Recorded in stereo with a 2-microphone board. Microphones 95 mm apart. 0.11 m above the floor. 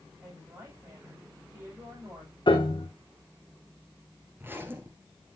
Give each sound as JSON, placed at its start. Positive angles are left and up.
{"t": 0.2, "sound": "a woman speaking", "side_deg": -40, "distance_m": 6.5}
{"t": 2.5, "sound": "a piano", "side_deg": 65, "distance_m": 2.5}
{"t": 4.4, "sound": "a zipper", "side_deg": -25, "distance_m": 1.6}